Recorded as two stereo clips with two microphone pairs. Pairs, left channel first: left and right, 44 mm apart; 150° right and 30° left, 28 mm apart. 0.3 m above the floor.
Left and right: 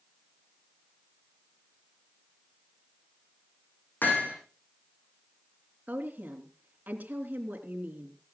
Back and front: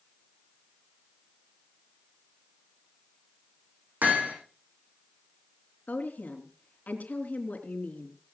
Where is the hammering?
45° left, 6.5 m.